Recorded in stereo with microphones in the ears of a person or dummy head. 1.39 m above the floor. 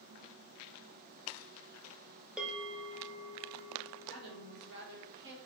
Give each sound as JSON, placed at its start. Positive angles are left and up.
{"t": 2.4, "sound": "a bell", "side_deg": -5, "distance_m": 0.7}
{"t": 4.1, "sound": "a woman speaking", "side_deg": -70, "distance_m": 1.2}